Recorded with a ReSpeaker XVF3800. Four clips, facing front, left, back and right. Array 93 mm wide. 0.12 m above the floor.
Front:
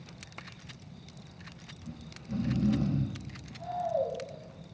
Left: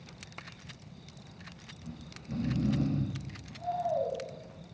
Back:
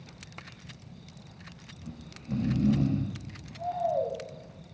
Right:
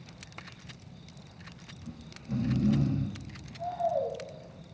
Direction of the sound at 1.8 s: 165° right.